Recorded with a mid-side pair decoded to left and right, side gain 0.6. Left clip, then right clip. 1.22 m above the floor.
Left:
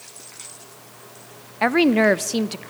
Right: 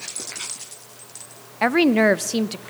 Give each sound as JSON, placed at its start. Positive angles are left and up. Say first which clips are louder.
{"t": 1.6, "sound": "a woman speaking", "louder": "even", "azimuth_deg": 5, "distance_m": 0.7}